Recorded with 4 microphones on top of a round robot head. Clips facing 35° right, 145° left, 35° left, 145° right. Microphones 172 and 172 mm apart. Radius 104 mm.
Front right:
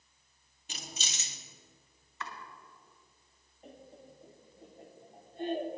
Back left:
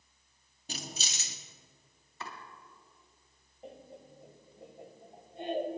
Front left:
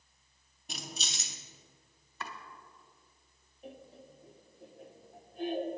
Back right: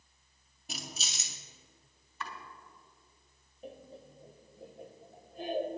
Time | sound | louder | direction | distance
0.7 | keys jangling | back left 3 dB, front left 1 dB | 130° left | 0.6 m
2.2 | chopping | front right 1 dB, back right 1 dB | 85° left | 2 m
3.6 | laughter | back left 3 dB, back right 2 dB | 145° right | 1.3 m